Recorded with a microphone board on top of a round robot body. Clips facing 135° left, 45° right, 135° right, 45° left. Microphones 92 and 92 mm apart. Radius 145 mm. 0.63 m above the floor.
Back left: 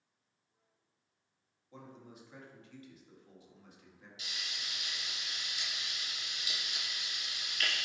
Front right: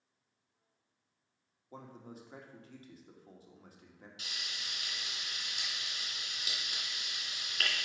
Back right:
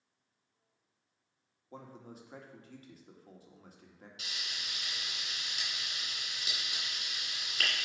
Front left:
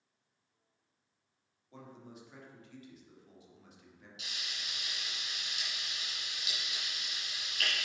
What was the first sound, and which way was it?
A man speaking, 90° right.